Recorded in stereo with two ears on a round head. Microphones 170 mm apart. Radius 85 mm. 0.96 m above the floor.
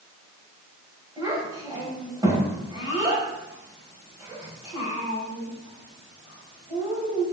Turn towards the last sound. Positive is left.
turn(degrees=-20)  # may be behind; listen again after turning